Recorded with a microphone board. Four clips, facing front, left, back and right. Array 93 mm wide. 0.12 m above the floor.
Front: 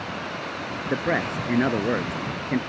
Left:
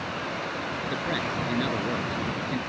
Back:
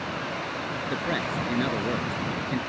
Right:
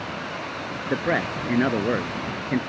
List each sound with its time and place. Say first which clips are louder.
0.9 s a man speaking: right 8 dB, front 5 dB; 55° right